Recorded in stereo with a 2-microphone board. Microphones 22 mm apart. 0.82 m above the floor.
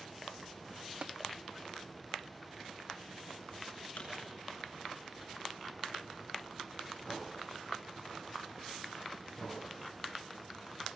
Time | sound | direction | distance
1.0 | tapping | 55° right (ahead or behind) | 0.7 m
4.0 | a pop | 80° left | 7 m